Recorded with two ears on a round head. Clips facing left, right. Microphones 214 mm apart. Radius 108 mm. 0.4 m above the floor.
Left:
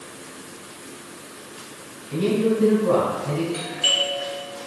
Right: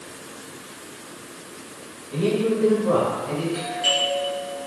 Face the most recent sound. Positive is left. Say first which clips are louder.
# right 2 dB
turn(degrees=60)  # may be behind; listen again after turning